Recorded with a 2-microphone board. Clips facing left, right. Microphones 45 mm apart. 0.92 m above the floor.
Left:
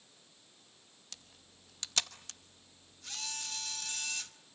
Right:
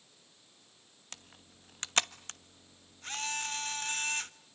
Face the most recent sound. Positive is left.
turn(degrees=-40)  # may be behind; listen again after turning